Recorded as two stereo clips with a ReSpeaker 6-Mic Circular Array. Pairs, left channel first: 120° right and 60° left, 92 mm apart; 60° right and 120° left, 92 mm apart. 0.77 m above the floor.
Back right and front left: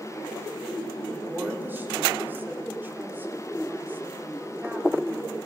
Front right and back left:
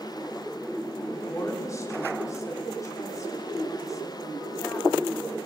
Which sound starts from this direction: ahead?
A woman speaking, at 1.1 s.